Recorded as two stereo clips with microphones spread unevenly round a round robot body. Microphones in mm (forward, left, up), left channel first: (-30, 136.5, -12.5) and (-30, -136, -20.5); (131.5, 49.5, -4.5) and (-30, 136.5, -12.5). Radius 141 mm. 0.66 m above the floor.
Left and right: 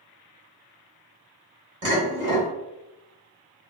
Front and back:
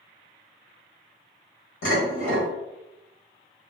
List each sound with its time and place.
1.8 s dishes clattering: 40° right, 1.4 m